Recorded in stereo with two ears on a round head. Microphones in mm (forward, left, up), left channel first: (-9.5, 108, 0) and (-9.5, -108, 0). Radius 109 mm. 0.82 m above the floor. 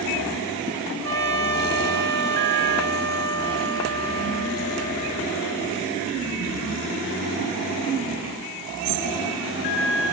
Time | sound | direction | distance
1.0 | a trumpet | 60° right (ahead or behind) | 9.5 m